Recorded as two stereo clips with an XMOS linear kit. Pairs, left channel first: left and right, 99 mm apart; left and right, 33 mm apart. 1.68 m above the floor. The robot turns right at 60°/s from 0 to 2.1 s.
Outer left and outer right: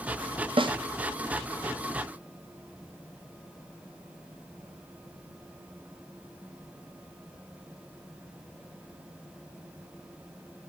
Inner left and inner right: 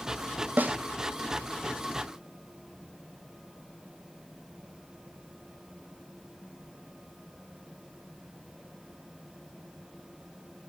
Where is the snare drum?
55° right (ahead or behind), 0.7 m; by 0.8 s 50° right (ahead or behind), 0.7 m.